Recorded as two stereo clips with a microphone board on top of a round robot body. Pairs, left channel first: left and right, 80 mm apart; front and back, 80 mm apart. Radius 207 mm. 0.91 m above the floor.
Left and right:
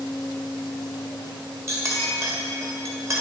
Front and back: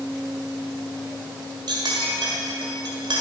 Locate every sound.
1.7 s a clink: 145° right, 1.7 m